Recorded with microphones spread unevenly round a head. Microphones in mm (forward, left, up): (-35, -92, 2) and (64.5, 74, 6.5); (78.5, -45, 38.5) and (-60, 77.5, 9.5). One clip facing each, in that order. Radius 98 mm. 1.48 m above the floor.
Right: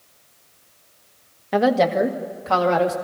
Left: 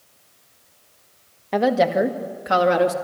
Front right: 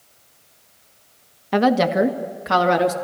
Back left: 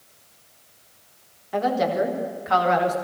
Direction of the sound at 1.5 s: 35° right.